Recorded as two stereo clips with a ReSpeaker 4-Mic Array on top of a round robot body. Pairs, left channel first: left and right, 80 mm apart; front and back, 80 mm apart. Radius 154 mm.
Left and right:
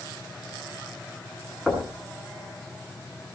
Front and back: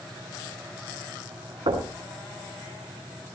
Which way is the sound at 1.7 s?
170° right.